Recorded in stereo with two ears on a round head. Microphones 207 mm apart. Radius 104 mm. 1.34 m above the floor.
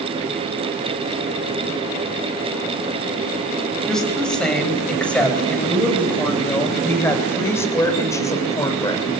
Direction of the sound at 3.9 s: 5° left (ahead or behind).